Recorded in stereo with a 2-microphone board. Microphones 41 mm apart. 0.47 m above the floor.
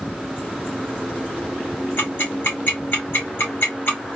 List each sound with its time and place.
2.0 s ticking: 60° left (ahead or behind), 2.5 m